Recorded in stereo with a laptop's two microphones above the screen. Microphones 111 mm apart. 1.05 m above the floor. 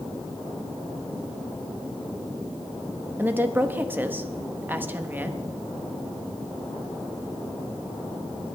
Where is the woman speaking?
20° right (ahead or behind), 1.4 m.